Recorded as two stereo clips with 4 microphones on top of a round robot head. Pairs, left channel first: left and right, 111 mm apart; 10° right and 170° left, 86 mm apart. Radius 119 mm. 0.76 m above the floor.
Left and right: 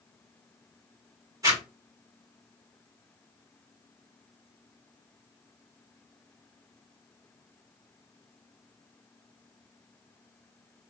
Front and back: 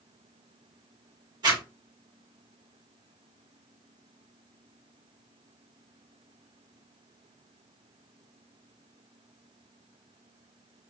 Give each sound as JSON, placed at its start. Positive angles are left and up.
{"t": 1.4, "sound": "a zipper", "azimuth_deg": -150, "distance_m": 1.6}